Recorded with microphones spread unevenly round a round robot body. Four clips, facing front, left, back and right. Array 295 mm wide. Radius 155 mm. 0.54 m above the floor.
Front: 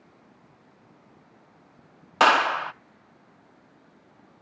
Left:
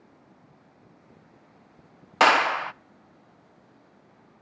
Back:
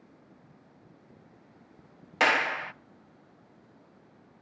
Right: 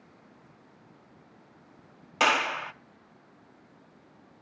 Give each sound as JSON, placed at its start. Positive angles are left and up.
{"t": 2.2, "sound": "a clap", "azimuth_deg": 25, "distance_m": 0.8}